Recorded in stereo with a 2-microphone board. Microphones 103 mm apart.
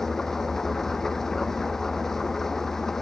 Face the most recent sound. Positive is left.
turn(degrees=5)  # may be behind; listen again after turning